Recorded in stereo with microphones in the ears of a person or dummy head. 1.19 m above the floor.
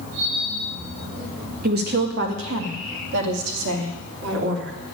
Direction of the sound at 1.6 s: 45° right (ahead or behind).